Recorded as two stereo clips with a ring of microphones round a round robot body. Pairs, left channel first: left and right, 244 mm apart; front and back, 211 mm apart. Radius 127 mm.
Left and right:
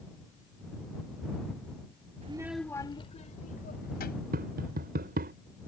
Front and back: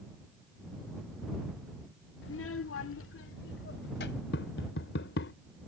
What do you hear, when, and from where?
2.2 s a child speaking: 30° right; by 4.2 s 35° left
4.3 s tapping: 40° right